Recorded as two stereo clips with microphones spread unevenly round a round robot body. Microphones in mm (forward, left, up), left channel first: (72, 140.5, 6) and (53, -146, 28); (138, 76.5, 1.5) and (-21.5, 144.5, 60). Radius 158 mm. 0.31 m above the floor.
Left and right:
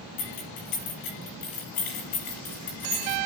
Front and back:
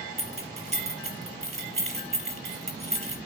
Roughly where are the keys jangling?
Left.